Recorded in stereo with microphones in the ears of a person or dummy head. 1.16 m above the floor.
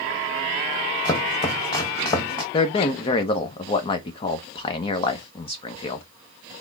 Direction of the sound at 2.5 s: 25° left (ahead or behind).